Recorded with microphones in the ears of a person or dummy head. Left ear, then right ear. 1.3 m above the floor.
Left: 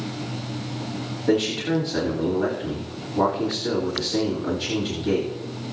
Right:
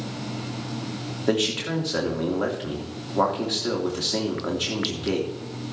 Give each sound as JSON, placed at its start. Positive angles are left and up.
{"t": 1.3, "sound": "a man speaking", "side_deg": -40, "distance_m": 3.0}